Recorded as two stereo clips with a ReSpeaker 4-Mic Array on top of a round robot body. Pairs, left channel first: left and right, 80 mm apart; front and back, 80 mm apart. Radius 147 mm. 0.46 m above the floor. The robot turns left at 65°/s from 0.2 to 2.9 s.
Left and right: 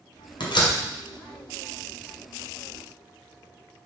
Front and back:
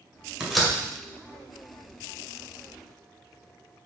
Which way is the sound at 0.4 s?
100° left.